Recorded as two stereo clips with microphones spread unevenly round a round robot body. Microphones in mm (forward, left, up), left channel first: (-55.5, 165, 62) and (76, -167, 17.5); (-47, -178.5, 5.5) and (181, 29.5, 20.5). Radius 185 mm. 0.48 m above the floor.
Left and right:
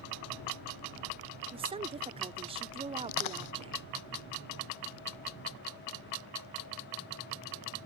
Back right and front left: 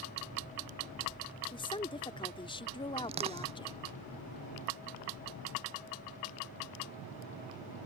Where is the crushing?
120° left.